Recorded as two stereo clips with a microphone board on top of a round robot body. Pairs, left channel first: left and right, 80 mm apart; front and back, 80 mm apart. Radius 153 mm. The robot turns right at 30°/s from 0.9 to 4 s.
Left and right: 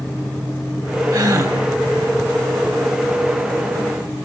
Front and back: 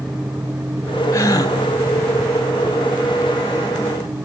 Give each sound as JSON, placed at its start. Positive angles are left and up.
{"t": 1.1, "sound": "a gasp", "azimuth_deg": -60, "distance_m": 4.5}